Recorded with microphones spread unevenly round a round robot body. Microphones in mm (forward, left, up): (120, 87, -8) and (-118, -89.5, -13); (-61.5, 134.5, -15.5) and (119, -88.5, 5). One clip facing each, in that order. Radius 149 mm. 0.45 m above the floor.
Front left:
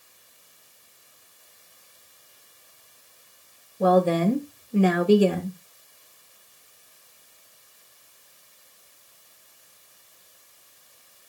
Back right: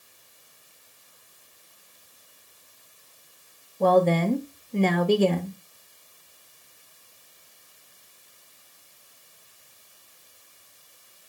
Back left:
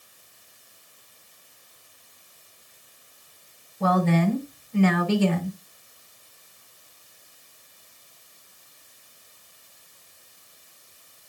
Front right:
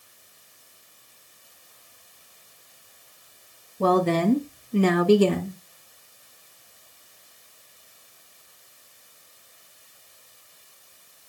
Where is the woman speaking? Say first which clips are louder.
Front left 1 dB, front right 2 dB; 40° right, 1.0 m.